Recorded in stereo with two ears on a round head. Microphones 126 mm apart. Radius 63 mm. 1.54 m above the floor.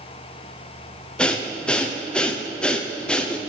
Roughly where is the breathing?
Centre.